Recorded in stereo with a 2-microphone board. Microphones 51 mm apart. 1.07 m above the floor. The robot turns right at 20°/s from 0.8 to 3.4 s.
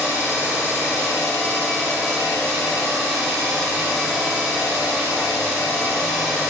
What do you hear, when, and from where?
0.0 s an engine running: 145° left, 2.0 m; by 6.5 s 160° right, 2.0 m